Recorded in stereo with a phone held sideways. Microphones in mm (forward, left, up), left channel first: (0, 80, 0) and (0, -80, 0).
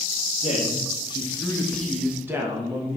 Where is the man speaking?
45° left (ahead or behind), 1.4 m; by 3.0 s 35° right (ahead or behind), 1.1 m.